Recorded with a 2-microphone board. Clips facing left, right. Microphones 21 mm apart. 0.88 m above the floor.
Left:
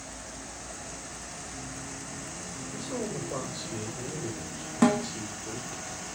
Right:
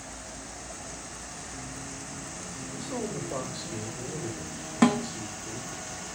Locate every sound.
2.7 s a man speaking: 5° left (ahead or behind), 3.5 m; by 5.8 s 40° left (ahead or behind), 1.5 m
4.8 s a snare drum: 10° right (ahead or behind), 1.2 m